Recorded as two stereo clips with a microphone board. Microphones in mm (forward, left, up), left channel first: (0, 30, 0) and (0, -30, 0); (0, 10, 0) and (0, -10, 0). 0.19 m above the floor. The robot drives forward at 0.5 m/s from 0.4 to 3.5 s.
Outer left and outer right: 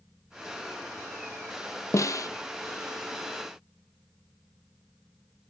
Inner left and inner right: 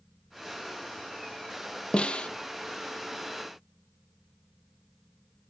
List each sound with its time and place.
1.9 s a snare drum: 55° left (ahead or behind), 0.9 m; by 2.3 s 65° left (ahead or behind), 0.8 m